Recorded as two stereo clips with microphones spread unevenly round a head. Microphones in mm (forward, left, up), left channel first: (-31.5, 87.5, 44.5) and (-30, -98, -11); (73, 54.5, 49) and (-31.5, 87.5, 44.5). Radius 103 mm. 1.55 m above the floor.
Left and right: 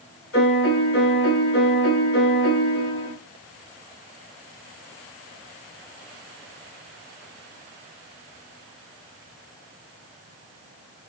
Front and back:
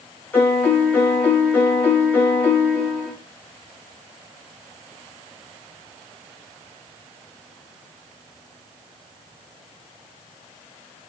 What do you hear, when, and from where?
0.3 s a piano: 55° left, 3 m